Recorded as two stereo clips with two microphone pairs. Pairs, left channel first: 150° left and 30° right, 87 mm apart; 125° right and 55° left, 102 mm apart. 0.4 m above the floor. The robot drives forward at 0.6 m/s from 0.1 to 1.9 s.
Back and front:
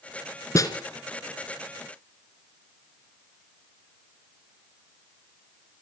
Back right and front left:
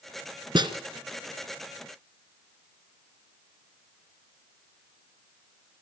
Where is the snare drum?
100° left, 2.5 m.